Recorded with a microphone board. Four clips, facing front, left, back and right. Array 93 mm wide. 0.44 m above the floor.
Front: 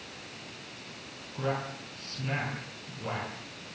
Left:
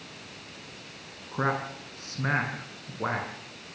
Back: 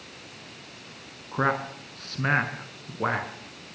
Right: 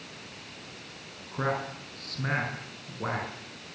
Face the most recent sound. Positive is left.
turn(degrees=160)